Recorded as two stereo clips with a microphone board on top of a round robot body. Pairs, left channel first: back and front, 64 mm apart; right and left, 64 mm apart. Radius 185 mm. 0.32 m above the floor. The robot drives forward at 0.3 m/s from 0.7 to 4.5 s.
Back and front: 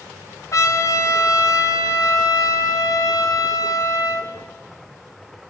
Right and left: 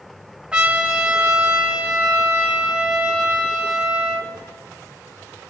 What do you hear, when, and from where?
0.5 s a trumpet: 165° left, 2.5 m; by 4.3 s 170° left, 3.5 m